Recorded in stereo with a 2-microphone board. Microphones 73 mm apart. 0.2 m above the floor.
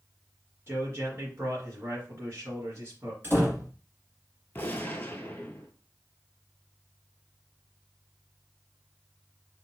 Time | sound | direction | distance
0.7 | a man speaking | 35° right (ahead or behind) | 1.5 m
3.2 | a door slam | 30° right (ahead or behind) | 1.4 m
4.5 | a gunshot | 25° left (ahead or behind) | 0.6 m